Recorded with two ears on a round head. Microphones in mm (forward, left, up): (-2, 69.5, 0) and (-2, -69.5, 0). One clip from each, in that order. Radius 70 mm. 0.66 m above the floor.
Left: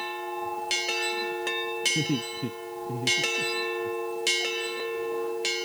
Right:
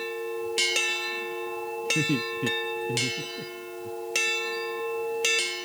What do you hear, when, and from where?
1.9 s laughter: 35° right (ahead or behind); by 3.9 s 25° right (ahead or behind)